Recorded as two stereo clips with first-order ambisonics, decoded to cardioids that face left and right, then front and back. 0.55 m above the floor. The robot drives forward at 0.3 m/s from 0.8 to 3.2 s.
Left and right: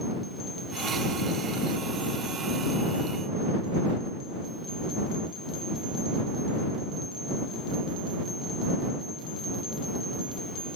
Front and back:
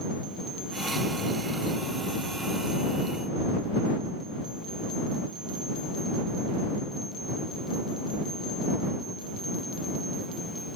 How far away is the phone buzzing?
I don't hear a phone buzzing.